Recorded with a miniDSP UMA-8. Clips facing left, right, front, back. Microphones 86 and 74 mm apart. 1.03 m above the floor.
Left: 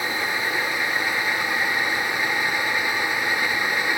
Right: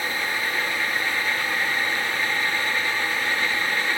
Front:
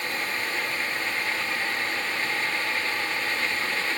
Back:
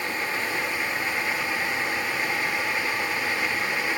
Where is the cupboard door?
I don't hear a cupboard door.